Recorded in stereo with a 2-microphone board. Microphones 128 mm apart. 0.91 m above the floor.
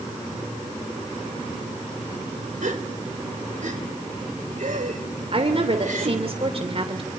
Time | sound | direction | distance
2.6 | a gasp | 80° right | 3.5 m
5.3 | a woman speaking | 50° right (ahead or behind) | 3 m